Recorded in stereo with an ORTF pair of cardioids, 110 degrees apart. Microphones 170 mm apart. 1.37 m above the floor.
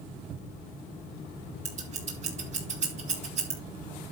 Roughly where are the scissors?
Ahead right.